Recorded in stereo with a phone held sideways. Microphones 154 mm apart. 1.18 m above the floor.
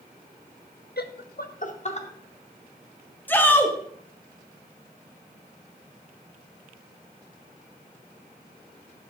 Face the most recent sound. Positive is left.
turn(degrees=10)  # may be behind; listen again after turning